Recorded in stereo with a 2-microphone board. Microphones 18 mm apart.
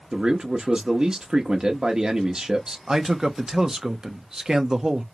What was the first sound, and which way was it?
A man speaking, 45° right (ahead or behind).